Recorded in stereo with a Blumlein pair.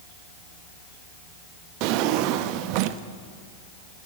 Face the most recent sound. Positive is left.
turn(degrees=-45)